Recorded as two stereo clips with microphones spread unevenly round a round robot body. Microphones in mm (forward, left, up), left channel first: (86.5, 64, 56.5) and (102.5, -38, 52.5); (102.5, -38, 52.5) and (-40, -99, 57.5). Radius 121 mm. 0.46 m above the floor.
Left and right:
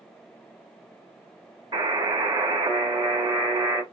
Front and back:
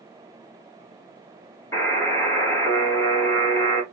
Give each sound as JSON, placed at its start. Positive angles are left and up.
{"t": 1.7, "sound": "a buzzer", "azimuth_deg": -45, "distance_m": 2.5}